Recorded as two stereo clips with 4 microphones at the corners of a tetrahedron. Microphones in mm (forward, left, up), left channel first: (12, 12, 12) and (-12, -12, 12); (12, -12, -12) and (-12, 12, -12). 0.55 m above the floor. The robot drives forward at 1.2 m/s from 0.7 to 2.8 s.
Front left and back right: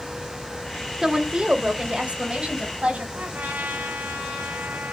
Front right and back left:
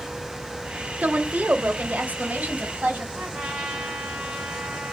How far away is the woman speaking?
About 1.1 m.